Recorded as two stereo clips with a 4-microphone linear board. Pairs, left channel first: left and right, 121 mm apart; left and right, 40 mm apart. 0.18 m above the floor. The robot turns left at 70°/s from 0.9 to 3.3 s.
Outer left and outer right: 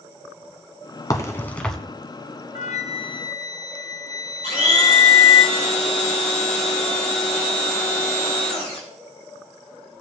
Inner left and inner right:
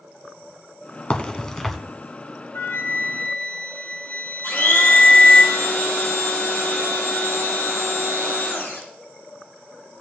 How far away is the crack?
About 1.3 m.